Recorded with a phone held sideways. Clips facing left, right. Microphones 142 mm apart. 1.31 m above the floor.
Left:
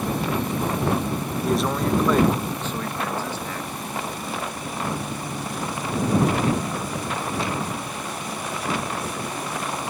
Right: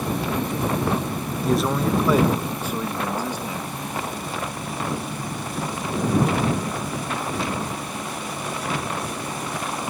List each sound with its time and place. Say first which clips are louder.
1.4 s a man speaking: right 1 dB; centre (ahead or behind); by 3.7 s 15° right (ahead or behind)